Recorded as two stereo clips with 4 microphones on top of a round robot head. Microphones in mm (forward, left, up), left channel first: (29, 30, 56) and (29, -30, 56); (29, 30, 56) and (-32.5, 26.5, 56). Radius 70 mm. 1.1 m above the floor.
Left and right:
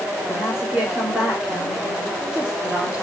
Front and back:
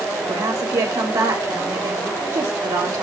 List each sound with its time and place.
0.3 s a woman speaking: 165° right, 4 m